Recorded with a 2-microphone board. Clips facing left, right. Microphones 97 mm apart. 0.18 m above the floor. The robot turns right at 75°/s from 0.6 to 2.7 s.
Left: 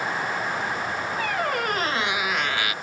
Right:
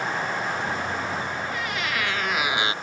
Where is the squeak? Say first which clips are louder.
Left 4 dB; 95° left; by 2.7 s 155° right.